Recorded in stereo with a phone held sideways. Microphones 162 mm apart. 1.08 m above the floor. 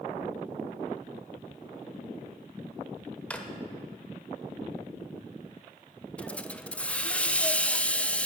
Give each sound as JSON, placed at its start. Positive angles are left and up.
{"t": 3.3, "sound": "a drawer", "side_deg": 5, "distance_m": 0.9}
{"t": 6.2, "sound": "a hiss", "side_deg": 10, "distance_m": 0.5}